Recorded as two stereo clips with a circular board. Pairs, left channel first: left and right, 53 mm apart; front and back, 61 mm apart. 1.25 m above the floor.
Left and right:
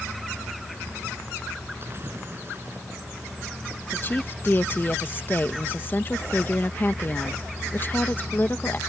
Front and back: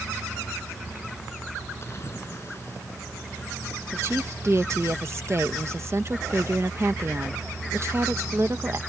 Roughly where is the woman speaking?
Behind left.